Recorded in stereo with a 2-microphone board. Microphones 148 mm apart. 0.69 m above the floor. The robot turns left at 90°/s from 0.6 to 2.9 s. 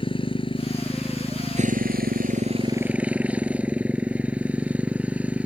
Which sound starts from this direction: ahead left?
A motorcycle, at 0.0 s.